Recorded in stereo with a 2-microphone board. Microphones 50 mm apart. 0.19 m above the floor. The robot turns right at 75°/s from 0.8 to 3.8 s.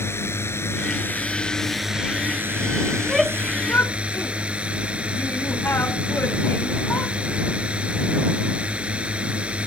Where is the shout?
15° right (ahead or behind); by 7.1 s 50° left (ahead or behind).